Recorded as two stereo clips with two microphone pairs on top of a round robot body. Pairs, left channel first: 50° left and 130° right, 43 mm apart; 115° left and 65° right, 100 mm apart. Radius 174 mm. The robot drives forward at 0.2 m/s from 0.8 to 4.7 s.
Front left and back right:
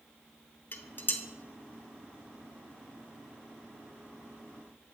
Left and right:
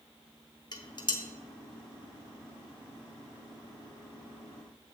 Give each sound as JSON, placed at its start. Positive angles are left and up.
{"t": 0.7, "sound": "dishes clattering", "azimuth_deg": 75, "distance_m": 1.0}